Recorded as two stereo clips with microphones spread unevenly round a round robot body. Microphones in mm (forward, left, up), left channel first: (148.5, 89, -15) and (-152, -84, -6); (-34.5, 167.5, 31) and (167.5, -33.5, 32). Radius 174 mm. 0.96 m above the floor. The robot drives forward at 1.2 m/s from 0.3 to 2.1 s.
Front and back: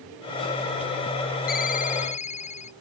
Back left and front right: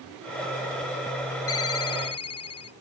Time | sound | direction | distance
1.5 | a ringtone | 95° left | ?